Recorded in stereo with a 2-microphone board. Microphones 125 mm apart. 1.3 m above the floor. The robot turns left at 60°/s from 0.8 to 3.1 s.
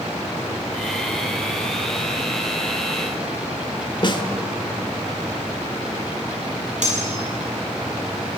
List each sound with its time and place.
4.0 s a snare drum: 40° left (ahead or behind), 2 m
6.8 s cutlery clinking: 70° right (ahead or behind), 6.5 m